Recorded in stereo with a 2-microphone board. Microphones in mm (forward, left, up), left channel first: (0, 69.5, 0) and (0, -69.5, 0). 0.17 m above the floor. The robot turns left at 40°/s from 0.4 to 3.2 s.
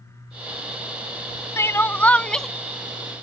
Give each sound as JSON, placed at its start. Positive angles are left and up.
{"t": 1.6, "sound": "crying", "side_deg": 20}